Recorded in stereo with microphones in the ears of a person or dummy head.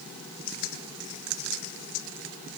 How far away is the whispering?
I don't hear whispering.